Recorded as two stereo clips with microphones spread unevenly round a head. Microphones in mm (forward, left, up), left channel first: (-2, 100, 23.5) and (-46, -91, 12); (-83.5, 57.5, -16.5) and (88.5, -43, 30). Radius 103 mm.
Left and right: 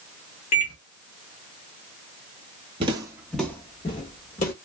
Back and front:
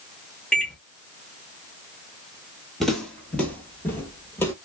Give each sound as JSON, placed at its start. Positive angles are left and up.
{"t": 0.5, "sound": "a microwave", "azimuth_deg": 65, "distance_m": 1.2}
{"t": 2.8, "sound": "footsteps", "azimuth_deg": -85, "distance_m": 1.0}